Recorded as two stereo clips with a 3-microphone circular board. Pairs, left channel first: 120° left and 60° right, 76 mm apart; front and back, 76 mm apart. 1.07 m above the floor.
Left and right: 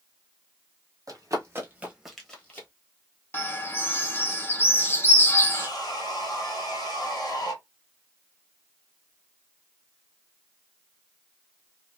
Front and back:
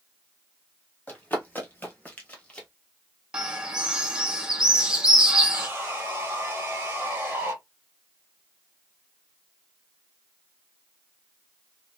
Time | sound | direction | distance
1.1 | running footsteps | 60° right | 1.6 m
3.3 | a bird | 120° left | 0.6 m
5.5 | sawing | 125° left | 1.4 m